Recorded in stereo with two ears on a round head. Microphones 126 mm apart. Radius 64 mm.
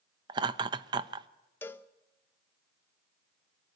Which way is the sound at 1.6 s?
15° left (ahead or behind).